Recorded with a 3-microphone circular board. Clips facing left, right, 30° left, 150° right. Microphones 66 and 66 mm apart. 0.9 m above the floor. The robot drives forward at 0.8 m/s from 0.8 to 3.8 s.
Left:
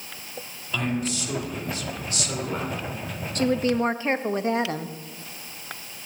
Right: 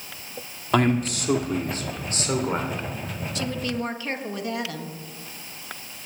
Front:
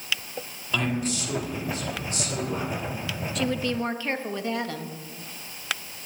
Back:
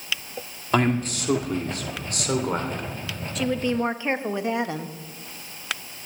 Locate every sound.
0.7 s a man speaking: 110° right, 1.5 m; by 2.9 s 150° right, 2.5 m
3.4 s a woman speaking: 120° left, 0.6 m; by 4.9 s 145° left, 0.8 m